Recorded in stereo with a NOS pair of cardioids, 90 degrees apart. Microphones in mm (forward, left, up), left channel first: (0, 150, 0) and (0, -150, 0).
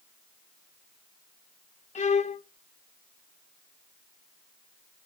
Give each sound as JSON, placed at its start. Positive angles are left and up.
{"t": 1.9, "sound": "a violin", "azimuth_deg": 25, "distance_m": 0.6}